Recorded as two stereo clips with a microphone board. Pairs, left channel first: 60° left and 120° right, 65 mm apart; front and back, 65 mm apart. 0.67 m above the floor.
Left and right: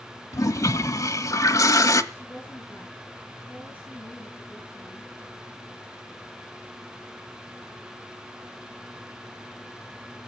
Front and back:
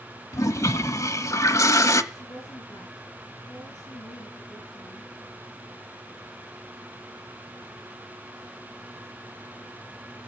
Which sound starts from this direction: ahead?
A woman speaking, at 2.1 s.